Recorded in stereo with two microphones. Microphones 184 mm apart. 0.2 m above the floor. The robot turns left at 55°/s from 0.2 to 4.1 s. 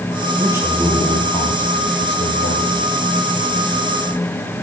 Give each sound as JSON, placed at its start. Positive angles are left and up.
{"t": 0.4, "sound": "a man speaking", "azimuth_deg": -160, "distance_m": 9.5}